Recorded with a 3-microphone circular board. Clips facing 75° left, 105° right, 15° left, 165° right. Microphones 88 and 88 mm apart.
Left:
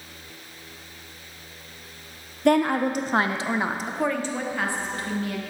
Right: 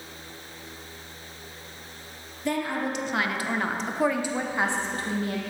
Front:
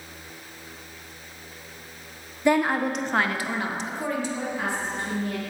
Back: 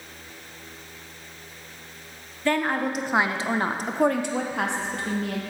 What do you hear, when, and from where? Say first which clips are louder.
2.5 s a woman speaking: left 8 dB, front 2 dB; 85° left, 0.8 m; by 5.4 s 160° right, 1.2 m